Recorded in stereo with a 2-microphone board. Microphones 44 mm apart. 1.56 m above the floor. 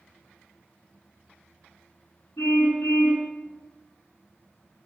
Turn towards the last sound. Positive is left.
turn(degrees=75)  # may be behind; listen again after turning